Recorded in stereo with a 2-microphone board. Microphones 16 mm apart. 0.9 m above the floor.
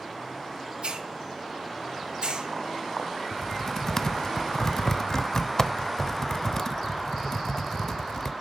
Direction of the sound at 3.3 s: 35° left (ahead or behind).